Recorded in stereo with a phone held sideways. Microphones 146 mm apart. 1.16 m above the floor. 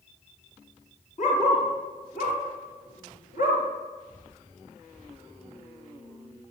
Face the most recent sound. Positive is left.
turn(degrees=70)  # may be behind; listen again after turning